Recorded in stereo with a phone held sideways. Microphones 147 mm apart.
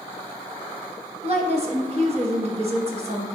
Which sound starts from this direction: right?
A woman speaking, at 1.2 s.